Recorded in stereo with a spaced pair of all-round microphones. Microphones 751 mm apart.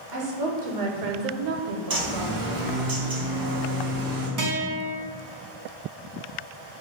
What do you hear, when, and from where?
0.1 s a woman speaking: 75° right (ahead or behind), 1.2 m; by 2.9 s 10° left (ahead or behind), 0.8 m
1.9 s a bird: 30° right (ahead or behind), 0.6 m
4.4 s a guitar: 30° right (ahead or behind), 0.6 m